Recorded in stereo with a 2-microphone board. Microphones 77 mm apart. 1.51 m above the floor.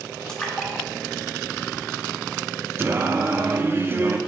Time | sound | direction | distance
0.3 | a splash | 5° left (ahead or behind) | 1.3 m
2.8 | singing | 30° right (ahead or behind) | 0.5 m